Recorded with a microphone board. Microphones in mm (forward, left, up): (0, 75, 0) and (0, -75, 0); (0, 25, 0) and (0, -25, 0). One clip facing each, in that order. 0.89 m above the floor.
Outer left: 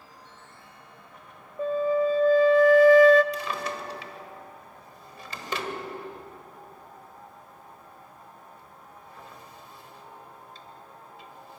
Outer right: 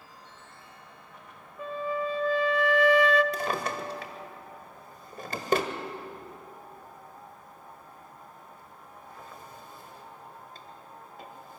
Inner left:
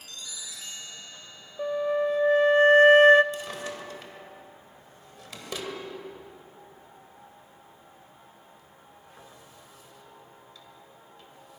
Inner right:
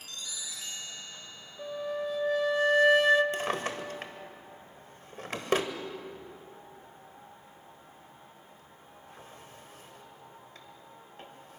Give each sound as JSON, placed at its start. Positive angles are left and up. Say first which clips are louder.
{"t": 1.6, "sound": "a flute", "louder": "outer left 8 dB, inner left 8 dB", "side_deg": 45, "distance_m": 1.0}
{"t": 3.3, "sound": "a drawer", "louder": "outer right 2 dB, inner right 4 dB", "side_deg": -45, "distance_m": 1.7}